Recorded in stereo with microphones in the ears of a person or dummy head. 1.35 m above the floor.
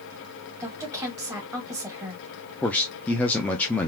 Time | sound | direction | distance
0.6 | a woman speaking | 10° right (ahead or behind) | 1.9 m
2.6 | a man speaking | 5° left (ahead or behind) | 0.6 m